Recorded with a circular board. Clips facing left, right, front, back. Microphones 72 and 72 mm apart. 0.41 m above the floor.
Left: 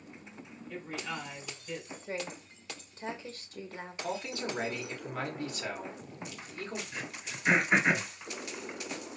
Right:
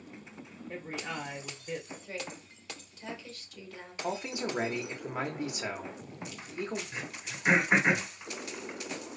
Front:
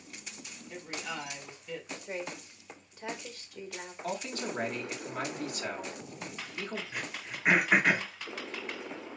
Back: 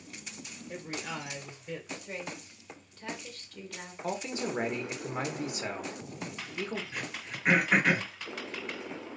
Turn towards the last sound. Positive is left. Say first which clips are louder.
# right 1 dB, even
turn(degrees=-70)